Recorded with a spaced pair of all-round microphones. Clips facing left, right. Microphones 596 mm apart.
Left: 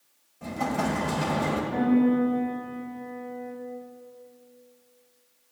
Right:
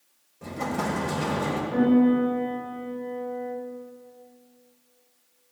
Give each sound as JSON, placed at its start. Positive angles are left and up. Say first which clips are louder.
{"t": 0.4, "sound": "an explosion", "louder": "left 1 dB", "side_deg": 10, "distance_m": 2.0}
{"t": 1.7, "sound": "a piano", "louder": "right 3 dB", "side_deg": 20, "distance_m": 6.5}